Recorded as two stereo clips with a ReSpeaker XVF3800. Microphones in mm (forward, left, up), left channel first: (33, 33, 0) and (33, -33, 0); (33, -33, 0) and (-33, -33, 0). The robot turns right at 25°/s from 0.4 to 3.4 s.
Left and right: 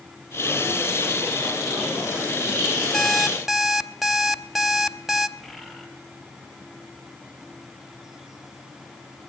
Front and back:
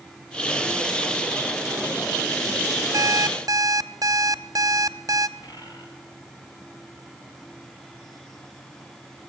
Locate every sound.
2.9 s an alarm clock: 170° left, 0.8 m; by 5.3 s 175° right, 0.8 m
5.4 s a bird: 5° left, 5 m